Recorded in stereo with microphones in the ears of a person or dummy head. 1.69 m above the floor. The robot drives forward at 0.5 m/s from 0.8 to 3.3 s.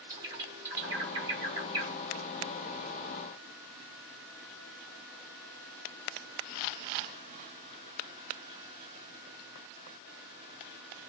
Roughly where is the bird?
Centre.